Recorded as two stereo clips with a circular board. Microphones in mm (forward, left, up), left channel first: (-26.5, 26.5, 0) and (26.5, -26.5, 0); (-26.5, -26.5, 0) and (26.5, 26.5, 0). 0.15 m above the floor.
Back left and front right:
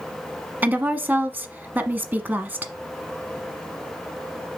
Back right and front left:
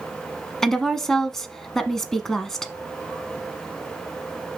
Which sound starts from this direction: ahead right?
A woman speaking, at 0.6 s.